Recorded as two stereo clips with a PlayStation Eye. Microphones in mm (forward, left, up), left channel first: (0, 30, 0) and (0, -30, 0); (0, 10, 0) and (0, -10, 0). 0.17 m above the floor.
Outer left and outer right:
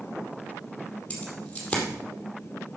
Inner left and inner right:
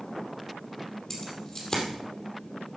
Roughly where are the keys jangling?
Left.